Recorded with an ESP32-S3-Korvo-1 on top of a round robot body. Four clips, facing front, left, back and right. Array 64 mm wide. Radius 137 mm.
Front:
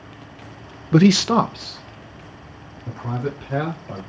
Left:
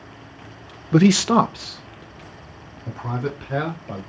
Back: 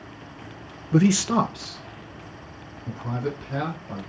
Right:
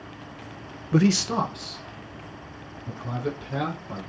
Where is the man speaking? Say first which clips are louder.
Left 6 dB, front 5 dB; 25° left, 0.6 m; by 4.0 s 65° left, 5 m.